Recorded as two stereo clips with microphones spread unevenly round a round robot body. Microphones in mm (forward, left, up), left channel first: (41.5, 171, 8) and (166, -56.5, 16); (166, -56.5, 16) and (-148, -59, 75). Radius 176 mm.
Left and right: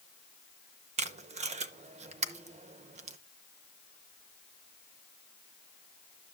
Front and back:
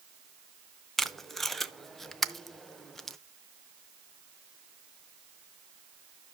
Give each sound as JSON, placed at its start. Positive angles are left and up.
{"t": 1.0, "sound": "tape being pulled", "azimuth_deg": -60, "distance_m": 0.6}